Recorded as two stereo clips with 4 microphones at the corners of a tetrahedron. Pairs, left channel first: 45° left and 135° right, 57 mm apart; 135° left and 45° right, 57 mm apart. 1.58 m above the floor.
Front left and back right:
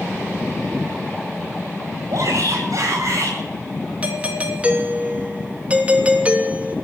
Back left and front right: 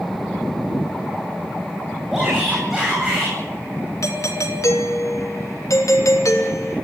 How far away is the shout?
About 9.5 m.